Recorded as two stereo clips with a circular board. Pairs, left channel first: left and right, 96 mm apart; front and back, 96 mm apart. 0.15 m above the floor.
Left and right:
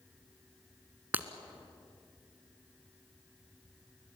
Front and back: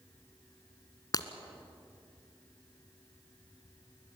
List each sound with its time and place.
1.1 s breaking glass: 25° right, 1.1 m